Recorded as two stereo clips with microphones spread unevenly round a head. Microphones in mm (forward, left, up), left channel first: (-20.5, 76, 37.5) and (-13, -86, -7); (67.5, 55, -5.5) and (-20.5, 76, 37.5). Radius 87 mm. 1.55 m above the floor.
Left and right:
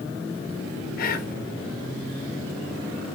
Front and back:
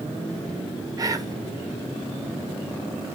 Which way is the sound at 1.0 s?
125° left.